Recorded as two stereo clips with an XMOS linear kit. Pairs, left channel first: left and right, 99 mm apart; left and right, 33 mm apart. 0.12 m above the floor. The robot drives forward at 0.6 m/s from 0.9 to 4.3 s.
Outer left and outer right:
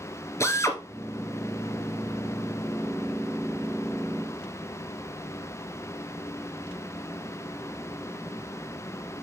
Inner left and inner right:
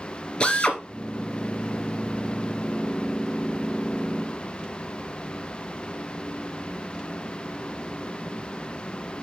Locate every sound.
0.4 s a drill: 30° left (ahead or behind), 1.7 m